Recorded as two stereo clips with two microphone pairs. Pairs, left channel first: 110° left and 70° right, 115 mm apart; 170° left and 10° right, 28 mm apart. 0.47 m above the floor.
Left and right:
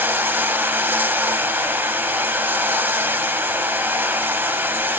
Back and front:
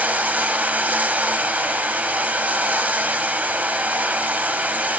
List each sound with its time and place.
0.0 s running water: straight ahead, 0.8 m